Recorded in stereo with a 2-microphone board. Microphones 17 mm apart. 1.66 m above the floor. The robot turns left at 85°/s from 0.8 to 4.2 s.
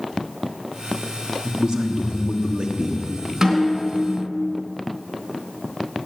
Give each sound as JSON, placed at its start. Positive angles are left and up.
{"t": 1.4, "sound": "a man speaking", "azimuth_deg": -20, "distance_m": 1.3}
{"t": 3.4, "sound": "a snare drum", "azimuth_deg": -160, "distance_m": 3.5}